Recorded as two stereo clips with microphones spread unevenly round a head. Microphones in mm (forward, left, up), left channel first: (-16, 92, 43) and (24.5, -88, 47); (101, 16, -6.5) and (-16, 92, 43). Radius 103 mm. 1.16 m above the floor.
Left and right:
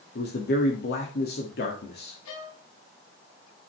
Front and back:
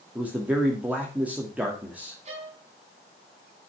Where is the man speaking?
65° left, 2 m.